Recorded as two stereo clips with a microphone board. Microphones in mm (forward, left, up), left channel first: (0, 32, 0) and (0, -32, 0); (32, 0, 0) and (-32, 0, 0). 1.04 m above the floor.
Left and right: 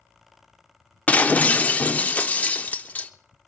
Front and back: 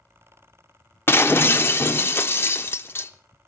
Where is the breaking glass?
35° left, 0.7 m.